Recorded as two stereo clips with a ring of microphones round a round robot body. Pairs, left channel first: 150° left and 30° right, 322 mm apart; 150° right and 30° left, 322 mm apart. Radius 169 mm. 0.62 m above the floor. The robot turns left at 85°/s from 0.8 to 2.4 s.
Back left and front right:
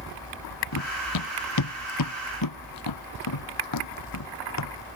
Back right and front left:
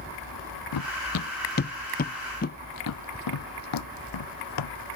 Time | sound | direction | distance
0.7 | running footsteps | 170° right | ?